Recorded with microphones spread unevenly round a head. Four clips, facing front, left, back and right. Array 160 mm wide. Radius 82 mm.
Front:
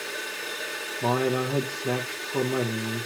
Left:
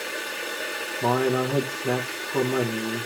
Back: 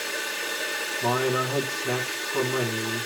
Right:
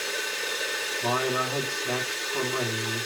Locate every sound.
0.0 s running water: 90° left, 1.3 m
1.0 s a man speaking: 60° left, 1.0 m